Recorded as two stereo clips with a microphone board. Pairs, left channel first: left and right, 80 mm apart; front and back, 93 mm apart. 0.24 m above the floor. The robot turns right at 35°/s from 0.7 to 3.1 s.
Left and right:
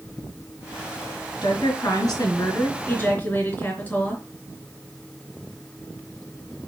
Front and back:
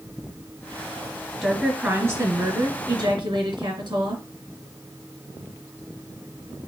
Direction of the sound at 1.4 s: 95° left.